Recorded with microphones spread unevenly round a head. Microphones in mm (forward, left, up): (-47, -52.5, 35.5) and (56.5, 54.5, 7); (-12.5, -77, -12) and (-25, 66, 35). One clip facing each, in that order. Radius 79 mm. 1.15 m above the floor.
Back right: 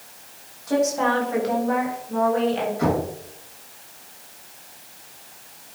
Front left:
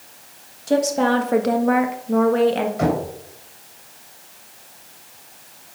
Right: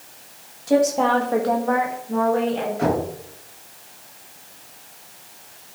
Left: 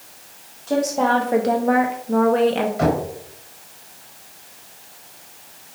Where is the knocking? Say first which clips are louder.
Even, even; 60° left, 4 m.